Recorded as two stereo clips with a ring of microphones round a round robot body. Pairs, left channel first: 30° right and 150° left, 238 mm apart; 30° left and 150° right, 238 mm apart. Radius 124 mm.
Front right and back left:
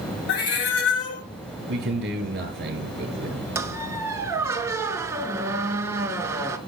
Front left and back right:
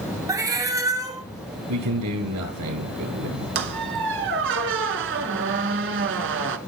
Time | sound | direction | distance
0.3 | a cat meowing | 75° right | 1.0 m
1.7 | a man speaking | 160° right | 5 m
3.5 | a squeak | 135° right | 0.7 m